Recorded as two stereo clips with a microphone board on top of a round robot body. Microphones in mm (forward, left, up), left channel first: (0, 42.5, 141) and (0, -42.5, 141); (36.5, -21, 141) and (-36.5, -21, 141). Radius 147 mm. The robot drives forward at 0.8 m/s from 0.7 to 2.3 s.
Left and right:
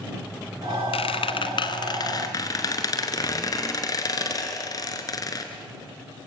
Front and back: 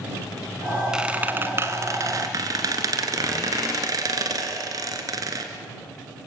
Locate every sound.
0.9 s a squeak: 100° left, 1.1 m; by 5.5 s 140° left, 1.7 m